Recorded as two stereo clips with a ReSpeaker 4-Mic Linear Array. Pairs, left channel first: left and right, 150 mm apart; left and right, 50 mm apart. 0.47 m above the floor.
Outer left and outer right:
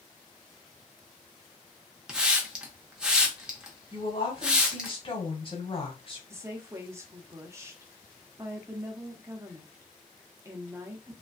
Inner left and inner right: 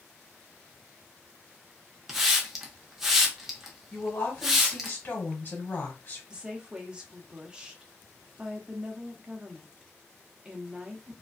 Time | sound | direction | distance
2.1 | a hiss | 5° right (ahead or behind) | 0.7 m
3.9 | a woman speaking | 35° left (ahead or behind) | 1.5 m
6.3 | a woman speaking | 20° right (ahead or behind) | 0.8 m